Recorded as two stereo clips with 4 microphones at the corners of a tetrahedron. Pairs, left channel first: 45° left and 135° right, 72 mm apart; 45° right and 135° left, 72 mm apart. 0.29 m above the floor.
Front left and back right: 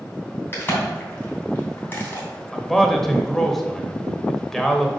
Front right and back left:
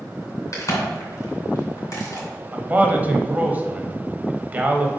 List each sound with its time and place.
0.5 s a crack: 15° right, 2.5 m
2.5 s a man speaking: 125° left, 0.9 m